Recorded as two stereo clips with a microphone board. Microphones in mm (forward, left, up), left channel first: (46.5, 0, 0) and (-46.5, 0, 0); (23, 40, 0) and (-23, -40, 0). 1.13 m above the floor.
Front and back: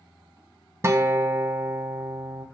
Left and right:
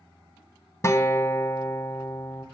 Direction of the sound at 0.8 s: 120° left.